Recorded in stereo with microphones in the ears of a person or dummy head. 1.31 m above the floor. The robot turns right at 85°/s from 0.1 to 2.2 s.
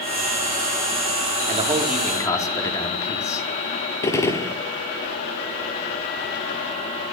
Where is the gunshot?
15° left (ahead or behind), 1.6 m.